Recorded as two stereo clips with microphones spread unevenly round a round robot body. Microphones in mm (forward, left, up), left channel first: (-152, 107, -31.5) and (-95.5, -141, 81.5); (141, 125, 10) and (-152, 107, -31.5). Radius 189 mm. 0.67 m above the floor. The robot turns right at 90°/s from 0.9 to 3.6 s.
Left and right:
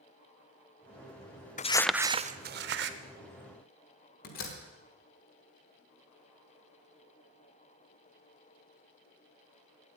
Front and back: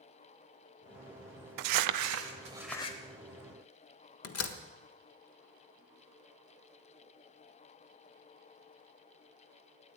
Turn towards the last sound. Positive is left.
turn(degrees=45)